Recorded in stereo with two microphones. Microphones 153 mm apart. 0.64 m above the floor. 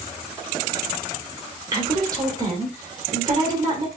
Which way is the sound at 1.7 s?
25° right (ahead or behind).